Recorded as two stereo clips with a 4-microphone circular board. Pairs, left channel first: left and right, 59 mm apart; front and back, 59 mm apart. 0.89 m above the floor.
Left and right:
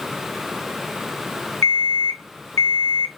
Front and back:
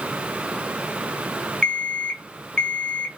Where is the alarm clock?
75° left, 0.7 m.